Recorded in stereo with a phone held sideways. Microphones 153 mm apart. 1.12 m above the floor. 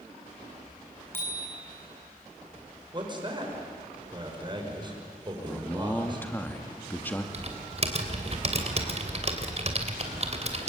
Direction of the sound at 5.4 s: 10° left (ahead or behind).